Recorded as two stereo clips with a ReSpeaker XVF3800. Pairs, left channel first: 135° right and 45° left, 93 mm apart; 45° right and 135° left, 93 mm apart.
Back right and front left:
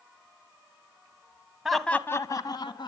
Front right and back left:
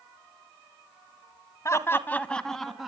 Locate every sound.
1.6 s laughter: 35° right, 1.1 m; by 2.9 s 140° right, 1.8 m